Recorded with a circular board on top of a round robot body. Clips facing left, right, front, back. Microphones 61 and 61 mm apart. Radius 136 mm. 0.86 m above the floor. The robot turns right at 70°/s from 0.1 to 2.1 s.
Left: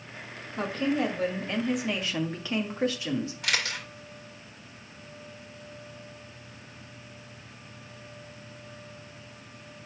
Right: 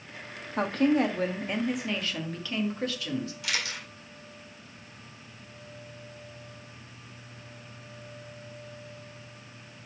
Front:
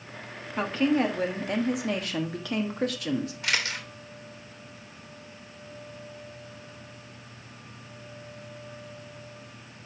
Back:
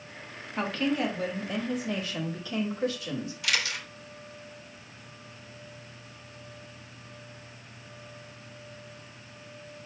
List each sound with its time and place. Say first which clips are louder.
0.6 s a woman speaking: right 4 dB, front 4 dB; 85° right, 1.6 m; by 3.3 s 25° left, 1.6 m
3.4 s a camera shutter: left 3 dB, front 1 dB; 55° left, 2.5 m